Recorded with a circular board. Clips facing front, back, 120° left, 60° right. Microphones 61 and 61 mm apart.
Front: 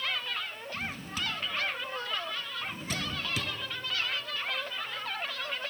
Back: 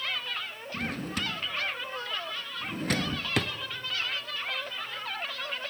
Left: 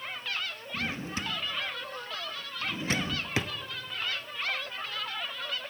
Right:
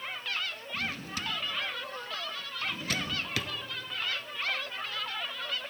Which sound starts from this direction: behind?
A drawer, at 0.7 s.